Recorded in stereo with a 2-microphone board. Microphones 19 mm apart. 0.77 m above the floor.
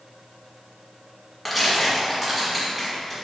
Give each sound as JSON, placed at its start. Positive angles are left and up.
{"t": 1.4, "sound": "tearing paper", "side_deg": 0, "distance_m": 1.3}